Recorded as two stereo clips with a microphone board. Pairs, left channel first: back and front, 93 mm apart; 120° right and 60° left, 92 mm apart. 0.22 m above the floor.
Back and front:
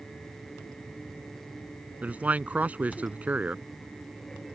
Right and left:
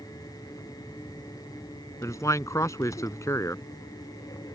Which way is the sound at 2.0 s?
70° right.